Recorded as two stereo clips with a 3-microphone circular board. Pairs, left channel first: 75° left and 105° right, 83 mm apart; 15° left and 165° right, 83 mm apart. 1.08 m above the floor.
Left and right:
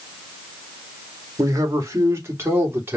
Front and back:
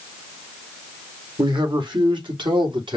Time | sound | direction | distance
1.4 | a man speaking | 150° right | 2 m